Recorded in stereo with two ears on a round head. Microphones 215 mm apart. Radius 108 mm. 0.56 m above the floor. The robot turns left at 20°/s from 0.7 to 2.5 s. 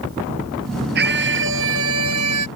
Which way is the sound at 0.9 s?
45° right.